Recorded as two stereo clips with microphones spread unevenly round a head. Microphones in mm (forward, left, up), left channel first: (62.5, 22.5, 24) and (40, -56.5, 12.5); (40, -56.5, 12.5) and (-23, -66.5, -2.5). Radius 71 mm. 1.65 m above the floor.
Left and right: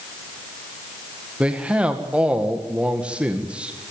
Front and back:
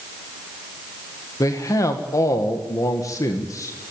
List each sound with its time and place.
1.4 s a man speaking: 30° right, 1.9 m